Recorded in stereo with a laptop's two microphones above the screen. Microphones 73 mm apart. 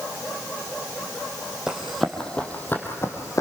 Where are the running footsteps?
10° right (ahead or behind), 1.8 m; by 3.4 s 45° left (ahead or behind), 2.5 m.